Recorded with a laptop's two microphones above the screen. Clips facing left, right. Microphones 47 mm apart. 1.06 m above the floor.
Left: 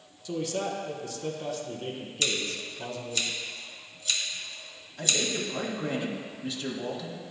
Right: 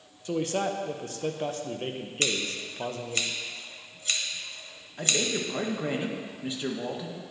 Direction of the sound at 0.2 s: 40° right (ahead or behind).